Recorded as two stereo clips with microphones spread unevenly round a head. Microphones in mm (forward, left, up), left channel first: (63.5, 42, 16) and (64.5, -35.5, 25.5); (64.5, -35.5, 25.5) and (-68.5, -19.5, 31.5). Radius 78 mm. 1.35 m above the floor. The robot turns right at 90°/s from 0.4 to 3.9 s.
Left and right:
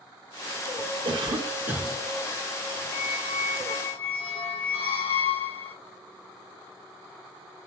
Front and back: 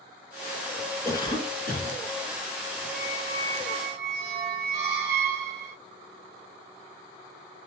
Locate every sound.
1.1 s a cough: 80° right, 1.5 m; by 2.0 s 5° left, 1.5 m
2.9 s a squeak: 80° left, 2.5 m; by 5.8 s 165° left, 2.5 m